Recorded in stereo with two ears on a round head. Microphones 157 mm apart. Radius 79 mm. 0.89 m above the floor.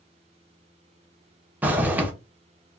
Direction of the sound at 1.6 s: 10° right (ahead or behind).